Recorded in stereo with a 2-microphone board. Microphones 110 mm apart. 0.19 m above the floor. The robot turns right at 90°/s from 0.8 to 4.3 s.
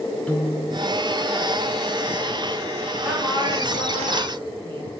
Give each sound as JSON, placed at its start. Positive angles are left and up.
{"t": 0.3, "sound": "a piano", "side_deg": 10, "distance_m": 1.5}
{"t": 3.0, "sound": "a woman speaking", "azimuth_deg": -170, "distance_m": 4.0}